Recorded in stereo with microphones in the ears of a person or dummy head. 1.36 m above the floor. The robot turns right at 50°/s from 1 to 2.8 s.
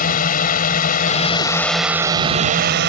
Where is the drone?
145° left; by 2.9 s 125° right.